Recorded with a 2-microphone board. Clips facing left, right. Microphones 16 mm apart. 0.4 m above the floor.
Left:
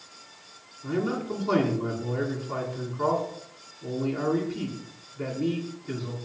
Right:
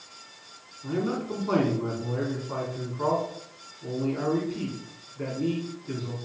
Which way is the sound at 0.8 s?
5° left (ahead or behind).